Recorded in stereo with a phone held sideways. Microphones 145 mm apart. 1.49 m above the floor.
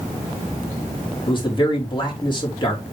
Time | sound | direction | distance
1.3 | a man speaking | 35° left (ahead or behind) | 3 m